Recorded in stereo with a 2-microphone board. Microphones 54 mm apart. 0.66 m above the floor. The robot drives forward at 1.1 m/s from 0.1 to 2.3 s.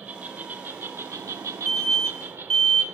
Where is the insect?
30° right (ahead or behind), 1.8 m; by 2.9 s 45° right (ahead or behind), 1.3 m.